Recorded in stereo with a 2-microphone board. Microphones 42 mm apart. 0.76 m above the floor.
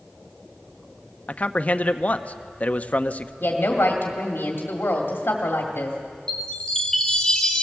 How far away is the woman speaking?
About 2.0 m.